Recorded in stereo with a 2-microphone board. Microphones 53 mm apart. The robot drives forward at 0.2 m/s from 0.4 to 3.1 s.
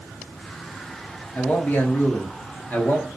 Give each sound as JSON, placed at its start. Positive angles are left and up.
{"t": 1.4, "sound": "a man speaking", "side_deg": 35, "distance_m": 0.7}